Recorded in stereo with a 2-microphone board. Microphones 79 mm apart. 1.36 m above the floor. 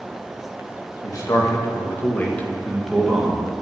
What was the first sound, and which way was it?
A man speaking, 55° left (ahead or behind).